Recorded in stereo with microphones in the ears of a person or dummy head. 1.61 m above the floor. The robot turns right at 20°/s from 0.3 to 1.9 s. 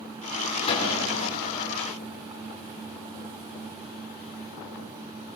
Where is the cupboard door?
30° left (ahead or behind), 6.5 m; by 1.1 s 40° left (ahead or behind), 6.5 m.